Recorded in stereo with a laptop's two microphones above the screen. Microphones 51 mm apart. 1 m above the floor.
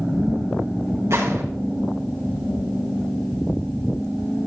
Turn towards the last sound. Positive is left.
turn(degrees=-70)  # may be behind; listen again after turning